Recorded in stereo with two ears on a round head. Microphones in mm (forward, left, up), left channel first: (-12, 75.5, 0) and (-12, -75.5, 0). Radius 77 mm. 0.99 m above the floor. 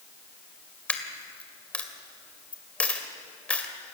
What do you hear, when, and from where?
0.9 s a dropped coin: 10° left (ahead or behind), 2 m